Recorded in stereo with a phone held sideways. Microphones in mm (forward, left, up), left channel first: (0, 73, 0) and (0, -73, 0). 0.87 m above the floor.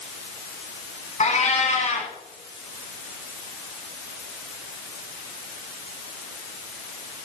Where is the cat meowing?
55° left (ahead or behind), 1.8 m.